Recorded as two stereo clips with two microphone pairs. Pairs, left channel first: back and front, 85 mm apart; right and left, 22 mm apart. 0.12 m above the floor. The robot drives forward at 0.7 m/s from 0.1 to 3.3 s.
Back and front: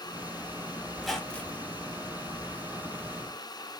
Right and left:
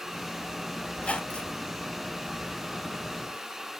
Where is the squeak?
85° right, 0.9 m; by 1.7 s 115° right, 1.0 m.